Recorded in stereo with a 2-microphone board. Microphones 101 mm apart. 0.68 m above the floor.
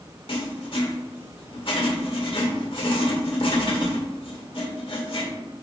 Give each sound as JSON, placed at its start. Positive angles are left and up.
{"t": 0.3, "sound": "writing", "side_deg": 55, "distance_m": 1.9}